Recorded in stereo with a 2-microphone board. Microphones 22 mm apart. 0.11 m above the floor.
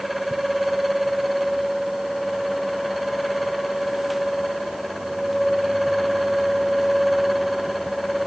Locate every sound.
Only background noise.